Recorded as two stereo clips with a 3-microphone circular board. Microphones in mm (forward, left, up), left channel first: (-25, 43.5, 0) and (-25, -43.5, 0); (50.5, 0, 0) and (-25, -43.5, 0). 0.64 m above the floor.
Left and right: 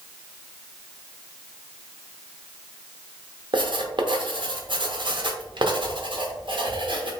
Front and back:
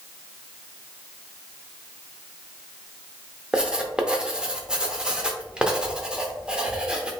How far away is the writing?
About 0.7 m.